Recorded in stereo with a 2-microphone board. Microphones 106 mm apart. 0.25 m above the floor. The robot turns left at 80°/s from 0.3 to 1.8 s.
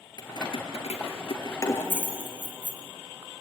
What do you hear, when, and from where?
0.2 s keys jangling: 40° left (ahead or behind), 3.5 m; by 2.8 s 15° left (ahead or behind), 3.5 m